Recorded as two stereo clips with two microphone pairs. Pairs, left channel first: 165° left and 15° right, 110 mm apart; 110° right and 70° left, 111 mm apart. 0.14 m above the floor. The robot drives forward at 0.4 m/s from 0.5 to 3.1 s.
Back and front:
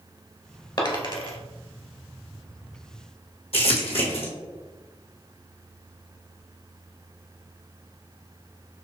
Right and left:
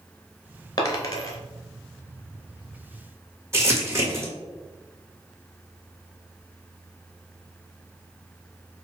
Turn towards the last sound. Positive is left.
turn(degrees=140)